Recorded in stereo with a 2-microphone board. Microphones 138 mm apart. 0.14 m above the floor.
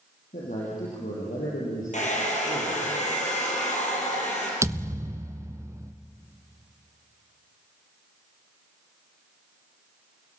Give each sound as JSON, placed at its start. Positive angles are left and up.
{"t": 0.3, "sound": "a man speaking", "side_deg": 75, "distance_m": 5.0}
{"t": 1.9, "sound": "a hair dryer", "side_deg": 60, "distance_m": 4.5}
{"t": 4.6, "sound": "a thud", "side_deg": -20, "distance_m": 0.8}